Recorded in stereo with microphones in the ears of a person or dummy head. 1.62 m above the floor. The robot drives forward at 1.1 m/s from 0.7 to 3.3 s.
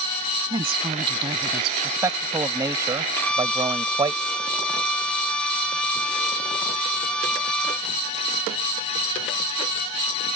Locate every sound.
0.5 s a woman speaking: 30° right (ahead or behind)
1.8 s a man speaking: 20° right (ahead or behind); by 4.2 s 25° right (ahead or behind)
3.2 s a violin: 10° left (ahead or behind)